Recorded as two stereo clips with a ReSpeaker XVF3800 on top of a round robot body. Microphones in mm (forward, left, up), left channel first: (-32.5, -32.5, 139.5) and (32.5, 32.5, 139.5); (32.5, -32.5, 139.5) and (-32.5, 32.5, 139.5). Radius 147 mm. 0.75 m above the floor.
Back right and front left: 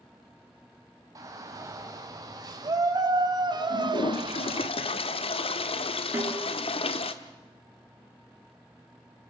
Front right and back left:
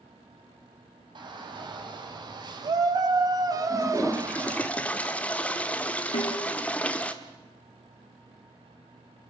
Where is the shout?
100° left, 4.5 m; by 4.7 s 70° left, 1.8 m.